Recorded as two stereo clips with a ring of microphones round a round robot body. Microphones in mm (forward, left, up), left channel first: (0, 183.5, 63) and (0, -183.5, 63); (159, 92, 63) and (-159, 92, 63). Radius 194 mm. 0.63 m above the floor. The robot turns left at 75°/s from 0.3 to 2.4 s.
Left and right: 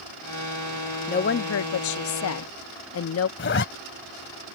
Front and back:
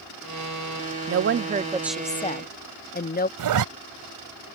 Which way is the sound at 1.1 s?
155° left.